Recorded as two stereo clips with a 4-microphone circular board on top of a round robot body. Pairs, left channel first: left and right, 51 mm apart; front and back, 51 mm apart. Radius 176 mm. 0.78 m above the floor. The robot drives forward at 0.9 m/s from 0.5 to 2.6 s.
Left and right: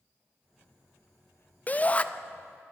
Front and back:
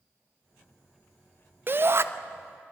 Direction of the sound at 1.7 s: 145° left.